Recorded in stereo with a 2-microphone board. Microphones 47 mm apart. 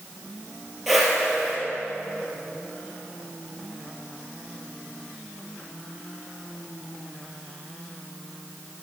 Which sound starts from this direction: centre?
A whoosh, at 0.9 s.